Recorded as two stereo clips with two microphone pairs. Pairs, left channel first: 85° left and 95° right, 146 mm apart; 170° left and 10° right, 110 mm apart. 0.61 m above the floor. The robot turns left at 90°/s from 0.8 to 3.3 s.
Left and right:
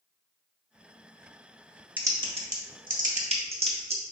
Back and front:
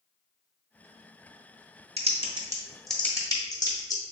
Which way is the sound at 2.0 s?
15° right.